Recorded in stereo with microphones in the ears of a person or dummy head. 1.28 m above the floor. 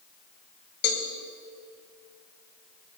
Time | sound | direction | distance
0.8 | a cowbell | 55° left (ahead or behind) | 2.5 m